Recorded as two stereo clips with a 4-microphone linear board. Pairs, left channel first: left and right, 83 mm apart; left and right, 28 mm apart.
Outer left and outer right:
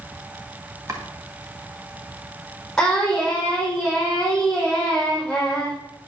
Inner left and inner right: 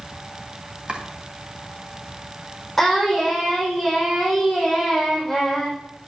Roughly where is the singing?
Centre.